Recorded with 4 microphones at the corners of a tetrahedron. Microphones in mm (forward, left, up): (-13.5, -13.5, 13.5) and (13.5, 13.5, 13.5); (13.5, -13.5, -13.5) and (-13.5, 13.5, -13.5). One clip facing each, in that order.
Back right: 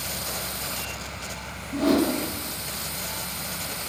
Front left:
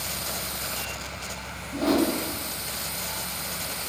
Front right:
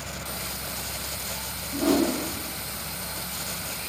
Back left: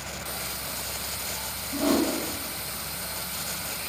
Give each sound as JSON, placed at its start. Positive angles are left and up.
{"t": 1.7, "sound": "a whoosh", "azimuth_deg": -165, "distance_m": 1.9}